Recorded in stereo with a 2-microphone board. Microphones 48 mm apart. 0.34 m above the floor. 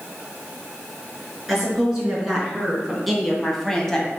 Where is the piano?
I don't hear a piano.